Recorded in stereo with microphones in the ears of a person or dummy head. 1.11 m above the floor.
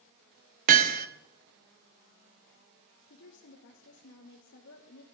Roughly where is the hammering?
Right.